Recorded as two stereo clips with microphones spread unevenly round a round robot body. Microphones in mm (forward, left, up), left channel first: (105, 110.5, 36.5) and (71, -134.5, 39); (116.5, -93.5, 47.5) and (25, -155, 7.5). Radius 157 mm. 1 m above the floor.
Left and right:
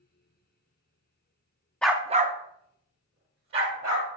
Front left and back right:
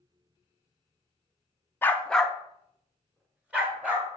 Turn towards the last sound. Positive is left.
turn(degrees=-65)